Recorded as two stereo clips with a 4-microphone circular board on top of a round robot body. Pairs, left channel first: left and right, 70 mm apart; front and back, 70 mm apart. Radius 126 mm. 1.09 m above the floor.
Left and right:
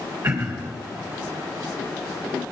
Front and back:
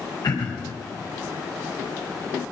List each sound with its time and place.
0.2 s throat clearing: 45° right, 1.6 m